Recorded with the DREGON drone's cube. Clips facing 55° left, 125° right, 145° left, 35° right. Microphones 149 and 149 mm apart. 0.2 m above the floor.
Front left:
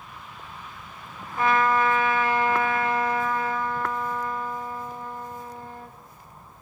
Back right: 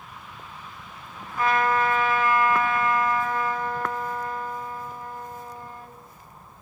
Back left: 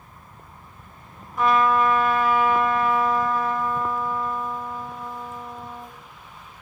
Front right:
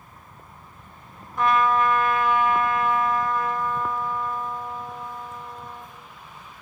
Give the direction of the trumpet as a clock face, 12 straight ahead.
10 o'clock.